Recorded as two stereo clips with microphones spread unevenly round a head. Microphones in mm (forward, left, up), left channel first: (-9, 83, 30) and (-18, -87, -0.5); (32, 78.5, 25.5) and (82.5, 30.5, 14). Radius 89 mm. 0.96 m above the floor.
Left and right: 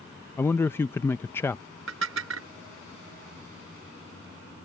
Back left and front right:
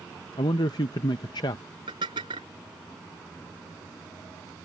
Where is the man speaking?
170° left.